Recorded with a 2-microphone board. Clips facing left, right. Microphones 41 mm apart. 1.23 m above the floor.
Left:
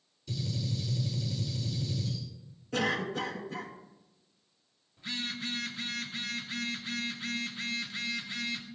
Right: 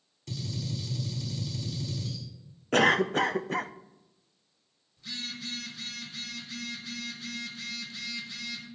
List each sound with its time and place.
0.3 s a gunshot: 70° right (ahead or behind), 4.5 m
2.7 s a cough: 60° right (ahead or behind), 0.5 m
5.0 s a phone buzzing: 30° left (ahead or behind), 1.4 m